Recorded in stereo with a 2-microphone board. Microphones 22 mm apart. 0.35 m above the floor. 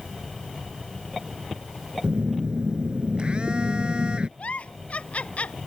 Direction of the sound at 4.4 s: 80° left.